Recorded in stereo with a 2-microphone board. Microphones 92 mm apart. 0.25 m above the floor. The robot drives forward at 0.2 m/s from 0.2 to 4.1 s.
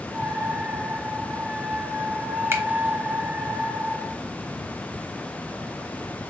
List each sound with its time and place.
2.5 s a finger snap: 30° right (ahead or behind), 1.0 m